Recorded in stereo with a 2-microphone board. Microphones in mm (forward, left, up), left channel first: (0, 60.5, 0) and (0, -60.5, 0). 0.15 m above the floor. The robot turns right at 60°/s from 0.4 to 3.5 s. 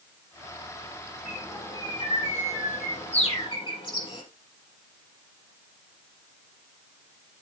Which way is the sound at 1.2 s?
Straight ahead.